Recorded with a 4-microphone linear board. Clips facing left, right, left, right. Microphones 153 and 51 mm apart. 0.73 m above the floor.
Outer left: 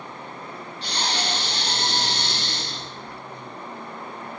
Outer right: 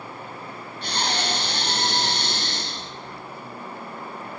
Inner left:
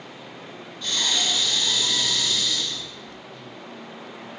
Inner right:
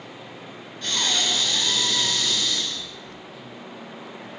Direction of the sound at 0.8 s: 55° right (ahead or behind).